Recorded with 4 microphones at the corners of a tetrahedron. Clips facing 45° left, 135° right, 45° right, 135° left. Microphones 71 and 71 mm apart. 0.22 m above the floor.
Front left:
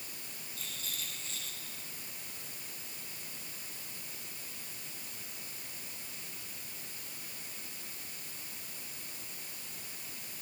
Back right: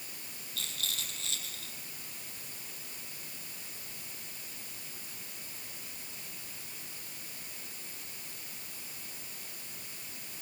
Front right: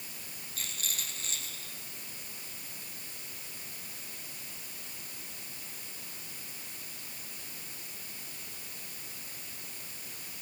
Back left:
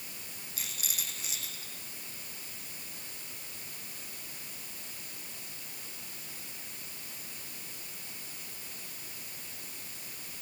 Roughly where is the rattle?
Behind right.